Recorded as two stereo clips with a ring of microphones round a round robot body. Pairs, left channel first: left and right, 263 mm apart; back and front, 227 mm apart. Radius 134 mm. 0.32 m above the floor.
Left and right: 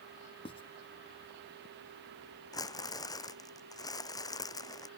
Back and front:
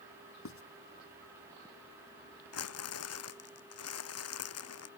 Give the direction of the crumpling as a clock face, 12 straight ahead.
6 o'clock.